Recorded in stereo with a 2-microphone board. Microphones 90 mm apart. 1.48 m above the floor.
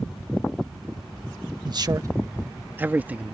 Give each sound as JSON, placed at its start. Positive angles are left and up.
{"t": 1.6, "sound": "a man speaking", "side_deg": -50}